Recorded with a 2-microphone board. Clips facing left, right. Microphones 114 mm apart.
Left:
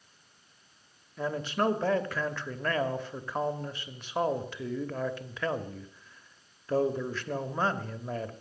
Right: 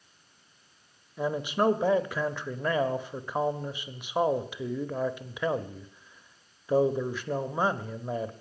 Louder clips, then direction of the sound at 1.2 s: Right 3 dB; 15° right (ahead or behind).